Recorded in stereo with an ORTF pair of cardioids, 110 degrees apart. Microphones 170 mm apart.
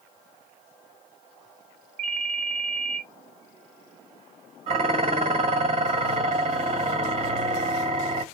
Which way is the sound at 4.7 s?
40° right.